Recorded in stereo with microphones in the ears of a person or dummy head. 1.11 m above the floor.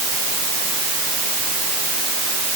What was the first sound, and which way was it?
Only background noise.